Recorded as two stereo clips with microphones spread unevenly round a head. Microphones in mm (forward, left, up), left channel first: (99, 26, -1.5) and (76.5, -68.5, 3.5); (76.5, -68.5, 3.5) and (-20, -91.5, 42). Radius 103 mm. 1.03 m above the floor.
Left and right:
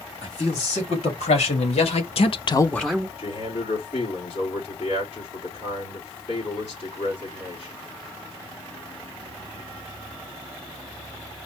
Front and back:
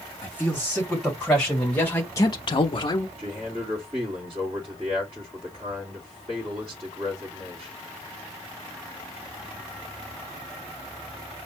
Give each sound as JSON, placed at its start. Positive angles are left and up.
{"t": 0.2, "sound": "a man speaking", "azimuth_deg": 105, "distance_m": 3.5}
{"t": 3.2, "sound": "a man speaking", "azimuth_deg": 130, "distance_m": 2.5}